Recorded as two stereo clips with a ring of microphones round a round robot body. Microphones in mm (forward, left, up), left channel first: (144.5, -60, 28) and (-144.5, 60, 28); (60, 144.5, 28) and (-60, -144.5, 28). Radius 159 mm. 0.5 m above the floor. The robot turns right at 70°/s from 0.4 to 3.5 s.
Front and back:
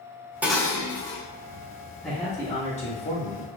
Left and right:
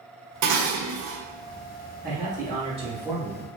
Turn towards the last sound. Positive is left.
turn(degrees=-15)